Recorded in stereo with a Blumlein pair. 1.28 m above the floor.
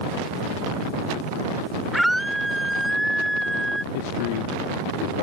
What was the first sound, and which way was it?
A scream, straight ahead.